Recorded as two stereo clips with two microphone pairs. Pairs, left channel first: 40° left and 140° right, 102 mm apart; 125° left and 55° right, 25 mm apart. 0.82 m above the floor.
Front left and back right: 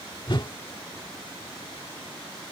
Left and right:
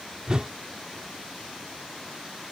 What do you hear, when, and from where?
0.3 s a whoosh: straight ahead